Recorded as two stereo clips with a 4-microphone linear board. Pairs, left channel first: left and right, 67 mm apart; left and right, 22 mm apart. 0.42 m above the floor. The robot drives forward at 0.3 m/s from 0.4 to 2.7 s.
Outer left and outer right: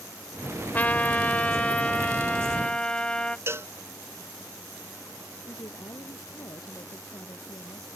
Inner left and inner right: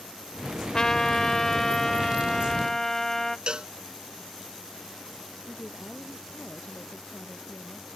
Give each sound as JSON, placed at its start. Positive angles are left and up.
{"t": 0.7, "sound": "a trumpet", "side_deg": 25}
{"t": 3.5, "sound": "a cowbell", "side_deg": -40}
{"t": 5.5, "sound": "a woman speaking", "side_deg": 65}